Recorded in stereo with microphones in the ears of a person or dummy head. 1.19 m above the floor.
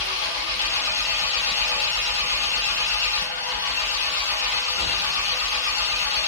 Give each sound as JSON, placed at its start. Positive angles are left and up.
{"t": 0.0, "sound": "an engine running", "side_deg": 65, "distance_m": 1.7}